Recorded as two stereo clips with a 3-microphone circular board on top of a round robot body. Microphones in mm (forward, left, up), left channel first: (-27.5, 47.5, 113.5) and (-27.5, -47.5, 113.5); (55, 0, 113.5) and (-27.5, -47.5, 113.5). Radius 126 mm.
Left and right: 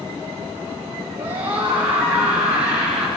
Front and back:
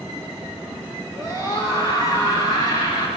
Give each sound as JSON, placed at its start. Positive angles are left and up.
{"t": 1.1, "sound": "a scream", "azimuth_deg": -20, "distance_m": 7.5}